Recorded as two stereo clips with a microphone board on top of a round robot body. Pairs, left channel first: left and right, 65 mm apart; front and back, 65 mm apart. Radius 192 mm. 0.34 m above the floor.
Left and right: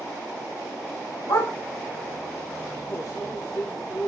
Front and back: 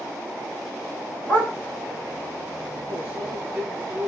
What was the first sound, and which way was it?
A dog barking, 70° left.